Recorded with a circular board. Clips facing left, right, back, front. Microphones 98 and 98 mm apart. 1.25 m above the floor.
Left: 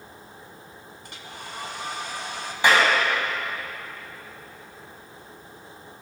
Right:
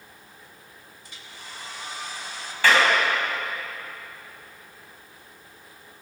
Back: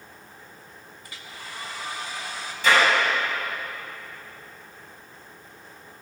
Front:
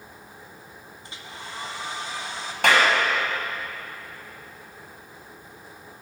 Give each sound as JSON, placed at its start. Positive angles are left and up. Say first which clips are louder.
{"t": 1.0, "sound": "a hair dryer", "louder": "left 5 dB, front 2 dB", "azimuth_deg": 65, "distance_m": 2.0}
{"t": 2.6, "sound": "a clap", "louder": "even, even", "azimuth_deg": 20, "distance_m": 6.5}